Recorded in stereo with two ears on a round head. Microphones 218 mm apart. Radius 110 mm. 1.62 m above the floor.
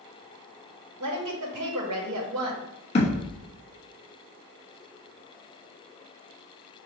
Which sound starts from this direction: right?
A woman speaking, at 1.0 s.